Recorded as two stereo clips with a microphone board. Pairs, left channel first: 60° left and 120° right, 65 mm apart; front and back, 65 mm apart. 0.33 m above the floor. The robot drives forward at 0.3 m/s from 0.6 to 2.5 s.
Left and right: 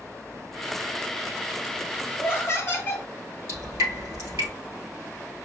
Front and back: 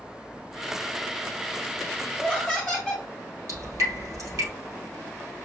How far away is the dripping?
About 3 m.